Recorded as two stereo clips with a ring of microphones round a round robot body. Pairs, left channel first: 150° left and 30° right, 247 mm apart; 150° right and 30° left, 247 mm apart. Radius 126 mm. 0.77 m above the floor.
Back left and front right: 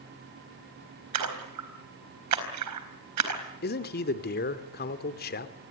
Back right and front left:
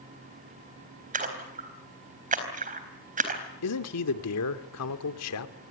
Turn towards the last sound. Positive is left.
turn(degrees=-160)